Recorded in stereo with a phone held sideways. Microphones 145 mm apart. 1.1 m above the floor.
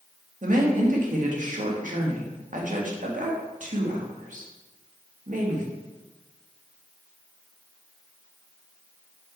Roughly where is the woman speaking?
Right.